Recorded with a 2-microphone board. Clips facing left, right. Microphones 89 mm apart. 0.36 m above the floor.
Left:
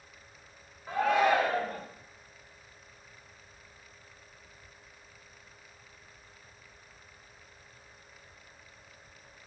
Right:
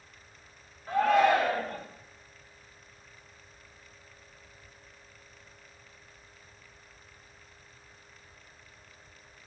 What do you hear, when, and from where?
0.9 s a shout: 15° left (ahead or behind), 1.1 m